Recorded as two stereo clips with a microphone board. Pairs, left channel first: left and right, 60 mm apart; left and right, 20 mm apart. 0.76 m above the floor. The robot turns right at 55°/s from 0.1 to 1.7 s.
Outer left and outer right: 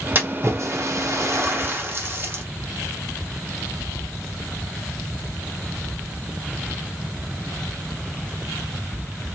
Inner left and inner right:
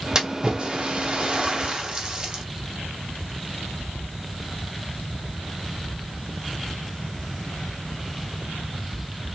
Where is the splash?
35° right (ahead or behind), 0.9 m.